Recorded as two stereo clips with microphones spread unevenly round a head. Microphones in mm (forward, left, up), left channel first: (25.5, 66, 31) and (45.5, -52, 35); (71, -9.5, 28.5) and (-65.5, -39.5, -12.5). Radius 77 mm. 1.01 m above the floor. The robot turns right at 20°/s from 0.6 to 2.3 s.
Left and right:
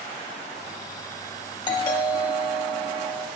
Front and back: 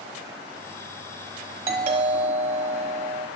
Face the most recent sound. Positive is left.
turn(degrees=165)